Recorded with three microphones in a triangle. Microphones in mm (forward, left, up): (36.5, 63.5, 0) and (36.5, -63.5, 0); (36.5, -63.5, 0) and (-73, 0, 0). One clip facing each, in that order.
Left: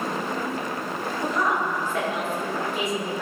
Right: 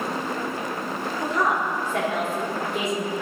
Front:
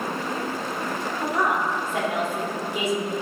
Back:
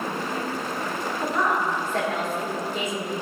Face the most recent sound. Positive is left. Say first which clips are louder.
# right 1 dB, even
turn(degrees=-110)